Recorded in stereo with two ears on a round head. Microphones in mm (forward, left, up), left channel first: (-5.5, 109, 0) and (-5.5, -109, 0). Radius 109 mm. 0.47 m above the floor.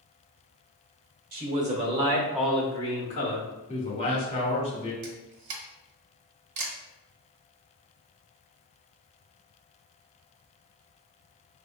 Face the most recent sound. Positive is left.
turn(degrees=-80)